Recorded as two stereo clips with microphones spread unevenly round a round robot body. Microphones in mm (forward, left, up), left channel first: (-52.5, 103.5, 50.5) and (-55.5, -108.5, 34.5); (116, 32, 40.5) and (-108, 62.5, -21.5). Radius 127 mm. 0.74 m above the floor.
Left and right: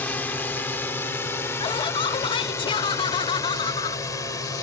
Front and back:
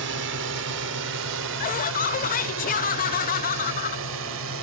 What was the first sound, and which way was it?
A drone, 170° left.